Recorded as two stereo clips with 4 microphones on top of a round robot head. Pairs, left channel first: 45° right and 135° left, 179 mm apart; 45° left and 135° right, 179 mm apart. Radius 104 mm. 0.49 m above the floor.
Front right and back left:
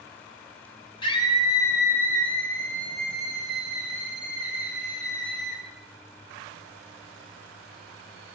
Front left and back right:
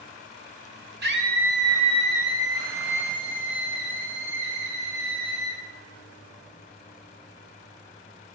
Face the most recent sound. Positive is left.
turn(degrees=-150)